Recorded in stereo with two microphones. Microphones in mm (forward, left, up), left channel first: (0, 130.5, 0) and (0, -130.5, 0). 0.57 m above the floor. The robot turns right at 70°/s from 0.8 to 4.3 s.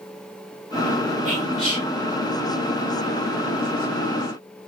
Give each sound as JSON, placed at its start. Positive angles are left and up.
{"t": 1.2, "sound": "whispering", "side_deg": -60, "distance_m": 2.0}